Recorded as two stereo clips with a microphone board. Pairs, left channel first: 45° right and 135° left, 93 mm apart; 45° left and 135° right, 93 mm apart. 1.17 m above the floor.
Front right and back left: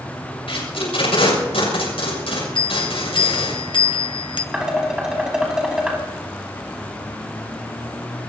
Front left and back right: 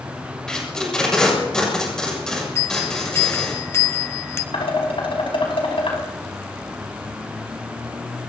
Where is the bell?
15° right, 1.2 m.